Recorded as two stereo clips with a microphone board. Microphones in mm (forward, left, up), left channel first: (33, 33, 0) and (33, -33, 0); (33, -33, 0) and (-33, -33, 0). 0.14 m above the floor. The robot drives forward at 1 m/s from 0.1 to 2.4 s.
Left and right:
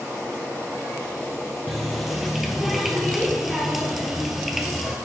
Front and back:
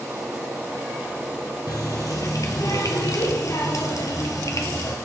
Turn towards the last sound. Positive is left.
turn(degrees=-5)